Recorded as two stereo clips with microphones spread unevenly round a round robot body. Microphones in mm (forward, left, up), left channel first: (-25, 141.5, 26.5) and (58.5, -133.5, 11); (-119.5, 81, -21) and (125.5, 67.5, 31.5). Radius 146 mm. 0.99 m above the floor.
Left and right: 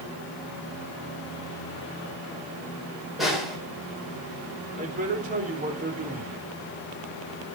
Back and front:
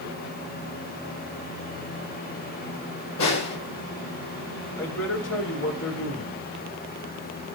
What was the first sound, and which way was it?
A snare drum, 160° right.